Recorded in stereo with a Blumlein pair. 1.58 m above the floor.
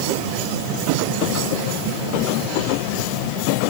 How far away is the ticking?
No ticking in this recording.